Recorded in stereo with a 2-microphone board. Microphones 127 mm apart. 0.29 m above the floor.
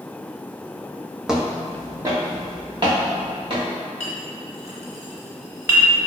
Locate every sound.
1.3 s footsteps: 5° right (ahead or behind), 0.6 m; by 3.7 s 45° right (ahead or behind), 1.9 m
4.0 s a clink: 20° right (ahead or behind), 0.9 m